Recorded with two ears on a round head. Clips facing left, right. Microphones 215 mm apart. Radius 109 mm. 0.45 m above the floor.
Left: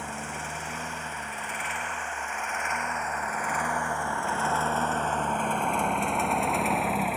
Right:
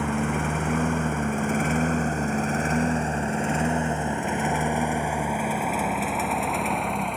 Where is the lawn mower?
55° right (ahead or behind); by 7.2 s 5° left (ahead or behind).